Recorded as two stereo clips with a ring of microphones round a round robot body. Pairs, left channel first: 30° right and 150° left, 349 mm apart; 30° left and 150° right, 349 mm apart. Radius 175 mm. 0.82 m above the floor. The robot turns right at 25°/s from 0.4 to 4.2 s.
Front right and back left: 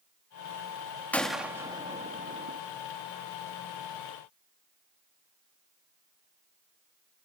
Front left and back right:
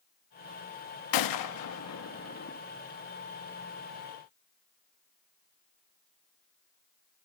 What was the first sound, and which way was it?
A gunshot, 55° left.